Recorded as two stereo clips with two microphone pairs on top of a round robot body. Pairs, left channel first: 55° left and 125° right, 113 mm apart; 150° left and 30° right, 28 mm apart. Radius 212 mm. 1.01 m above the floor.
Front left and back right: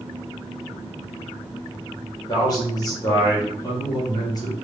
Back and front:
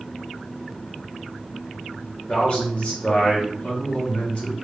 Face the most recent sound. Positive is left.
turn(degrees=105)